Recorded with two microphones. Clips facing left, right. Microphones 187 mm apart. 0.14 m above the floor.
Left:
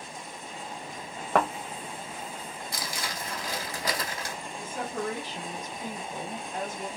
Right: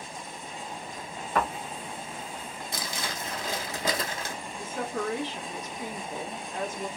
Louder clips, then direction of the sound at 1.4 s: Left 3 dB; 70° left (ahead or behind).